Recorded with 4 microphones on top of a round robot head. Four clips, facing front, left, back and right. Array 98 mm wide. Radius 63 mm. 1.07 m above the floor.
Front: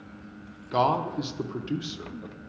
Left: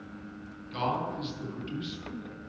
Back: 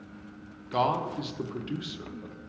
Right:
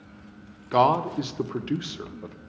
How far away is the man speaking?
About 0.6 m.